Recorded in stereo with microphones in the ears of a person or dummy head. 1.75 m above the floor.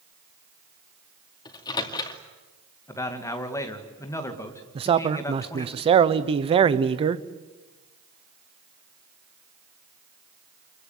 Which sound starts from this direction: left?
A microwave, at 1.4 s.